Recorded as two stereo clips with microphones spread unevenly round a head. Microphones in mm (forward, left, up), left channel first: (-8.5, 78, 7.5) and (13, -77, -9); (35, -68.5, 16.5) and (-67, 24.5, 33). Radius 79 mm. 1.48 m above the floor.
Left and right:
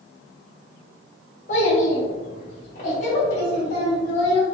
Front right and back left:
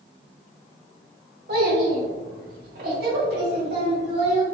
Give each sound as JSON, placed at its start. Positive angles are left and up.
{"t": 1.5, "sound": "a child speaking", "azimuth_deg": 140, "distance_m": 1.2}